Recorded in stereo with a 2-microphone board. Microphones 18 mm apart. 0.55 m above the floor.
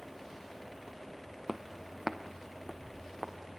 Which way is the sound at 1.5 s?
30° right (ahead or behind).